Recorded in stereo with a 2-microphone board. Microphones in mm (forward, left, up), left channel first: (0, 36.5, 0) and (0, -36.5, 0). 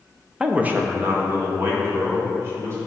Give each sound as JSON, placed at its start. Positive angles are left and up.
{"t": 0.4, "sound": "a man speaking", "side_deg": -10, "distance_m": 0.5}